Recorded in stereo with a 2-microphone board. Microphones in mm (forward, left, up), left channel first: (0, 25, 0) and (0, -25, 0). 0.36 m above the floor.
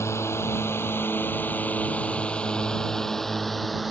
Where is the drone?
65° left (ahead or behind); by 3.9 s centre (ahead or behind).